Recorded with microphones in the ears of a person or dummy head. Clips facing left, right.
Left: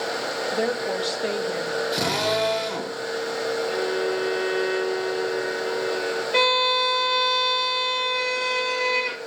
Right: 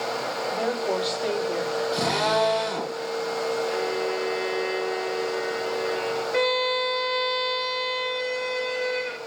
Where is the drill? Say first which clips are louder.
Right 1 dB; 25° left (ahead or behind), 5.5 m.